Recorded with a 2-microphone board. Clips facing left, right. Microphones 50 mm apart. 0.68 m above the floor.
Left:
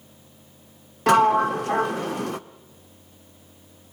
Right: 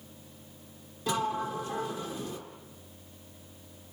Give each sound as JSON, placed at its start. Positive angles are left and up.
{"t": 1.1, "sound": "a sliding door", "side_deg": 65, "distance_m": 0.9}